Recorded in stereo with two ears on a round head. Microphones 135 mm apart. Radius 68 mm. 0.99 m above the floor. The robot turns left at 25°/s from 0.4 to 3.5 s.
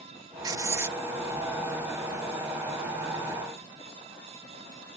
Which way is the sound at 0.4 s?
25° right (ahead or behind).